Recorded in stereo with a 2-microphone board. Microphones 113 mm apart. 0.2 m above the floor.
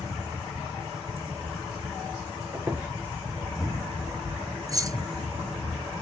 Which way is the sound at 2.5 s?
15° right (ahead or behind).